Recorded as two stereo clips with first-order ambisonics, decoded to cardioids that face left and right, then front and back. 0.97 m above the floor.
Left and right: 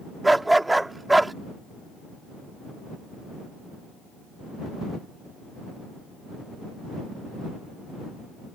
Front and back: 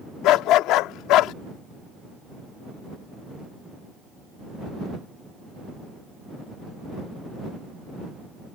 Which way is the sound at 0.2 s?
5° right.